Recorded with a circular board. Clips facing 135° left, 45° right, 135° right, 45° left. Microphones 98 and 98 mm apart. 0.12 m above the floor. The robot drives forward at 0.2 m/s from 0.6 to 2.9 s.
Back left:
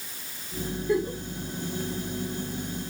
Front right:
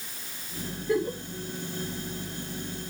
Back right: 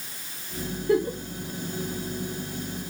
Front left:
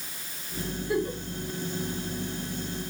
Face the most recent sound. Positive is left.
turn(degrees=-145)